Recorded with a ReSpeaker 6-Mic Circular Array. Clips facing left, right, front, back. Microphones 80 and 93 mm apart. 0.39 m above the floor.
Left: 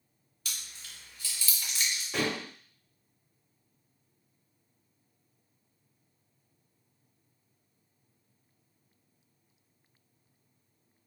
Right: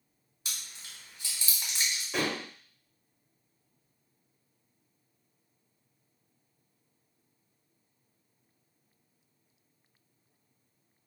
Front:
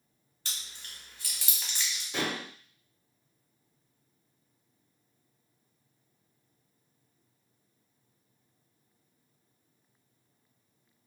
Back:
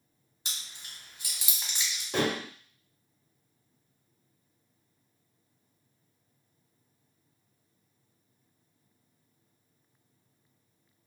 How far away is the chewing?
About 1.0 m.